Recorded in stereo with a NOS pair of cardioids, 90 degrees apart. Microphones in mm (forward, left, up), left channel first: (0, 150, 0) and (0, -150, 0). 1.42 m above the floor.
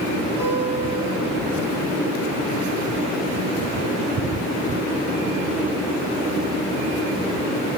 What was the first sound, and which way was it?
A guitar, 70° left.